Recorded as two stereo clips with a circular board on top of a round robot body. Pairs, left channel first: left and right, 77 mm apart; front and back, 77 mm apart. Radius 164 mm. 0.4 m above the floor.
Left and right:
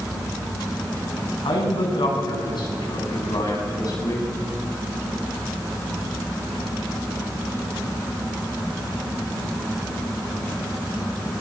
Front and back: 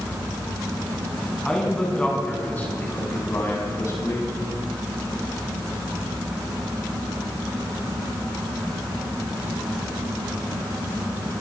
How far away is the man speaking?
About 6 m.